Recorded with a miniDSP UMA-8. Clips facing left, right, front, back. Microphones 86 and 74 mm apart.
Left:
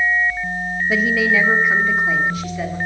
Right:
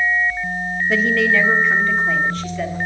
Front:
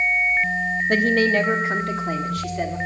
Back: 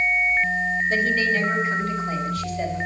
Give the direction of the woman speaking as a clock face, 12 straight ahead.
12 o'clock.